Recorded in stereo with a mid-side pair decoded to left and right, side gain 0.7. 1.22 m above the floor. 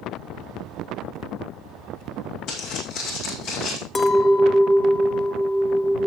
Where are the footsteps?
60° left, 4.5 m.